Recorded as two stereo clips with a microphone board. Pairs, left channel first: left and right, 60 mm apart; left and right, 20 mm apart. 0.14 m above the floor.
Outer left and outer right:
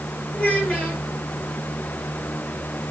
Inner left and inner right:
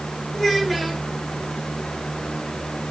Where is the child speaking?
25° left (ahead or behind), 2.5 m.